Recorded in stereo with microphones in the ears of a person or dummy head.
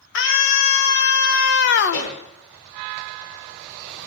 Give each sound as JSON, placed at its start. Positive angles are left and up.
{"t": 0.1, "sound": "a scream", "side_deg": 65, "distance_m": 2.5}
{"t": 1.9, "sound": "a pop", "side_deg": 65, "distance_m": 9.5}